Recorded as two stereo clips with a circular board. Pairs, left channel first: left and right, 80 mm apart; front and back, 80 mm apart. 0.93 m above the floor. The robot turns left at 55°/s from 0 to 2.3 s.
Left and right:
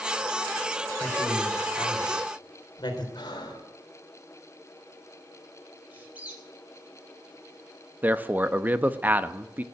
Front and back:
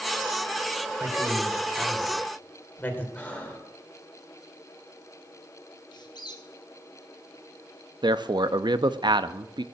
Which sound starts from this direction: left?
Breathing, at 3.1 s.